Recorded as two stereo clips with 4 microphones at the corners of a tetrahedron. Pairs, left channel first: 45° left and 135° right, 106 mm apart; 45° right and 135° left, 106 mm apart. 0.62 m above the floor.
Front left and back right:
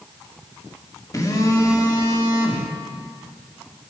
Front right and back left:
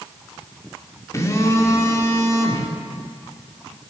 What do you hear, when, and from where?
1.1 s a phone buzzing: straight ahead, 1.7 m